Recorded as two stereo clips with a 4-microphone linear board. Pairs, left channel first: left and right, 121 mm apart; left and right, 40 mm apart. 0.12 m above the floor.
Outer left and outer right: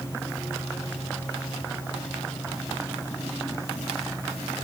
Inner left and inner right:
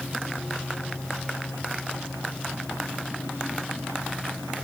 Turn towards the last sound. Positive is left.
No sound to turn to.